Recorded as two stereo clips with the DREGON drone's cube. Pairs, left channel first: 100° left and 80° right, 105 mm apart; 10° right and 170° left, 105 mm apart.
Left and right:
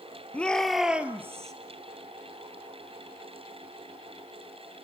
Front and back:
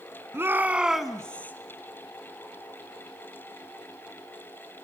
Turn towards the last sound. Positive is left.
turn(degrees=-70)